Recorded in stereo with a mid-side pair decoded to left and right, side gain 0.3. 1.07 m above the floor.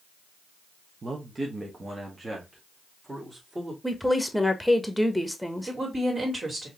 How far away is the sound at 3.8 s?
About 1.2 m.